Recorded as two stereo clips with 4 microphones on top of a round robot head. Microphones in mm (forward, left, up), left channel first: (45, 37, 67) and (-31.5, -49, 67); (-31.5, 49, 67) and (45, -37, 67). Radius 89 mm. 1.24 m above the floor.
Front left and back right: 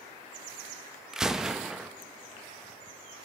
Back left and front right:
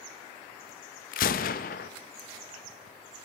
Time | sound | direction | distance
1.1 | a gunshot | 145° left | 0.8 m